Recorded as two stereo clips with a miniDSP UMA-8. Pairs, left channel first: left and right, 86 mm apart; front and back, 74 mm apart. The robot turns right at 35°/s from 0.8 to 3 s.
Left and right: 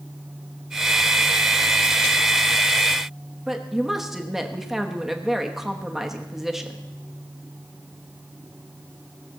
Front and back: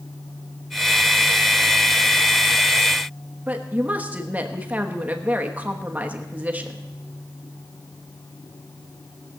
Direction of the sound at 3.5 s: 170° right.